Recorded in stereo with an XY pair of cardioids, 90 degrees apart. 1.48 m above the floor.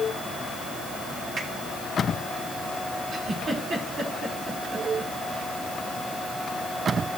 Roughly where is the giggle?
Ahead right.